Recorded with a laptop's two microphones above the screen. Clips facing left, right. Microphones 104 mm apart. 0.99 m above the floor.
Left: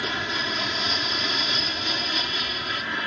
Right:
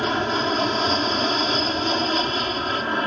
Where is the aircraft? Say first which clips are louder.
Right 8 dB; 45° right (ahead or behind).